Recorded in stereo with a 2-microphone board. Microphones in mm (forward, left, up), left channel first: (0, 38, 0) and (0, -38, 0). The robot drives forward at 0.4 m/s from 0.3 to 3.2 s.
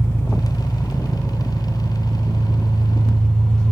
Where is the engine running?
30° left (ahead or behind), 0.8 m; by 3.7 s 10° left (ahead or behind), 1.9 m.